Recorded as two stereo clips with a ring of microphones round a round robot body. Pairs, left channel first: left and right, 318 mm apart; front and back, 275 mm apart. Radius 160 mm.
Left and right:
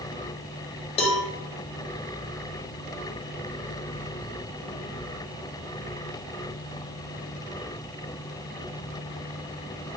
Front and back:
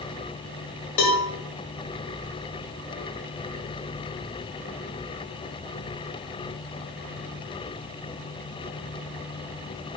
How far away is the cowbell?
About 1.0 m.